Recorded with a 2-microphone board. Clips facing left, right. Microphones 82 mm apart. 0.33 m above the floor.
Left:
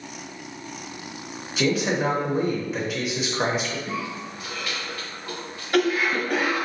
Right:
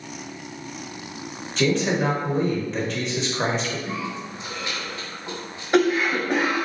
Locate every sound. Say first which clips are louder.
1.6 s a man speaking: right 1 dB; 5° left (ahead or behind), 0.8 m
3.9 s a cough: right 1 dB; 25° right (ahead or behind), 1.2 m